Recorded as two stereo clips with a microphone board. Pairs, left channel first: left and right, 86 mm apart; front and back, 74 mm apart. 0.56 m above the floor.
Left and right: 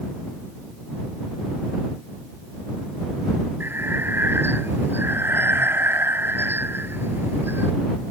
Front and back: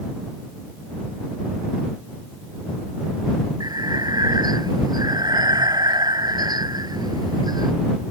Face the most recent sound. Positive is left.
turn(degrees=-155)